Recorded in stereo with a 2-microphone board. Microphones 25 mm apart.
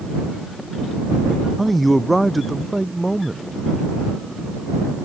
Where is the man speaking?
5° right (ahead or behind).